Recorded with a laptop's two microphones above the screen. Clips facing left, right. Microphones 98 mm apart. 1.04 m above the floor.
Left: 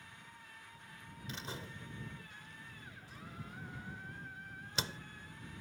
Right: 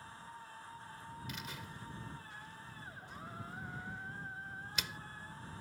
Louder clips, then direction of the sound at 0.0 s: Right 6 dB; 35° right (ahead or behind).